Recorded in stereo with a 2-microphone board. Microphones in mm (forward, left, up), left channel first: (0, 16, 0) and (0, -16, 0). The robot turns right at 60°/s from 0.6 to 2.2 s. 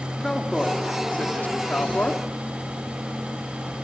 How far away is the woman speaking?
About 3 m.